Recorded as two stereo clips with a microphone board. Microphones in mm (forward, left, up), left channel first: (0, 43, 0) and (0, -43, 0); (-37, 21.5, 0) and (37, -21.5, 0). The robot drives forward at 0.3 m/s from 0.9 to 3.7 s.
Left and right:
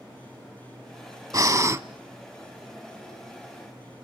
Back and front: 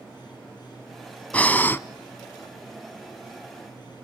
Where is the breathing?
135° right, 0.6 m; by 1.8 s 145° right, 0.7 m.